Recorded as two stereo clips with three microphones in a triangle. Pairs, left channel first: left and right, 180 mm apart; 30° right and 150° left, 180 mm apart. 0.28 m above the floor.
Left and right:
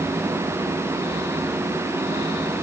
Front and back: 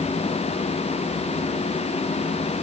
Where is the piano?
I don't hear a piano.